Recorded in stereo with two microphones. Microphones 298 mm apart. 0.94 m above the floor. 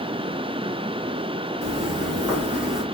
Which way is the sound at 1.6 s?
25° right (ahead or behind).